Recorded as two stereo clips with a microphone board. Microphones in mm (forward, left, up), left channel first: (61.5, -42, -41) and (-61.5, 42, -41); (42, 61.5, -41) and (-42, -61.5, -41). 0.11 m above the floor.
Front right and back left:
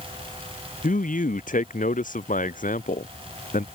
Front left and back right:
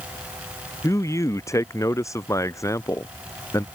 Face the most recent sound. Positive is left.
turn(degrees=-15)